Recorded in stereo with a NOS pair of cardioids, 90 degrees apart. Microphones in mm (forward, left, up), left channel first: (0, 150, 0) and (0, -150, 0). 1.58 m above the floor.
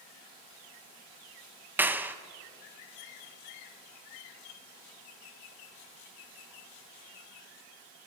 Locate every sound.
1.8 s a clap: 5° right, 1.4 m